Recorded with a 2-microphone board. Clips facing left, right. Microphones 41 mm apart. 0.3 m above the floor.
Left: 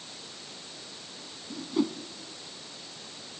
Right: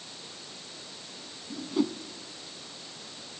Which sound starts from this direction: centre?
A whoosh, at 1.5 s.